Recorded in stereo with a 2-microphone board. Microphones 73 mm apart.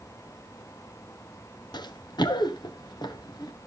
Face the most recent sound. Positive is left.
turn(degrees=70)  # may be behind; listen again after turning